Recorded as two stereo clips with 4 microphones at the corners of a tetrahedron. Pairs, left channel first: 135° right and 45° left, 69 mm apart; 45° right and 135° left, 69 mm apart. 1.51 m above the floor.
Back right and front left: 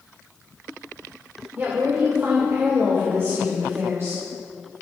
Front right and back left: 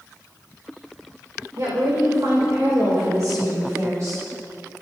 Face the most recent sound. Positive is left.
turn(degrees=95)